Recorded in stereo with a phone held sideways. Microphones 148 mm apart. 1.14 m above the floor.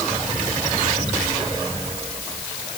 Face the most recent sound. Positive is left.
No sound to turn to.